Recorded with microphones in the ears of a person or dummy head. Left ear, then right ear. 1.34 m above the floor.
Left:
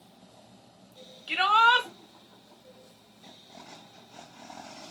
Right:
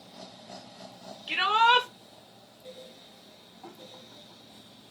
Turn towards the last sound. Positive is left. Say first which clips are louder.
# left 1 dB
turn(degrees=0)  # may be behind; listen again after turning